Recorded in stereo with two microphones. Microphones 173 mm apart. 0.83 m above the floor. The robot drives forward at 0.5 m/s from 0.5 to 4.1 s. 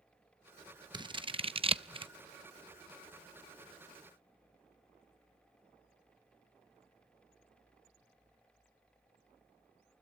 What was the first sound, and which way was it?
Scissors, 25° right (ahead or behind).